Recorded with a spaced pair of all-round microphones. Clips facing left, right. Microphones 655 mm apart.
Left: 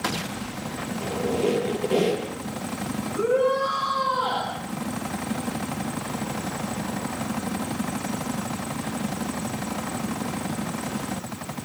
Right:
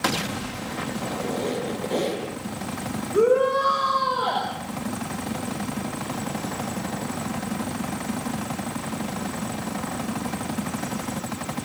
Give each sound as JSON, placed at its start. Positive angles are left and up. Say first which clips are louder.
{"t": 1.0, "sound": "a squeak", "louder": "left 6 dB", "side_deg": 55, "distance_m": 5.5}
{"t": 3.1, "sound": "a shout", "louder": "right 3 dB", "side_deg": -75, "distance_m": 6.5}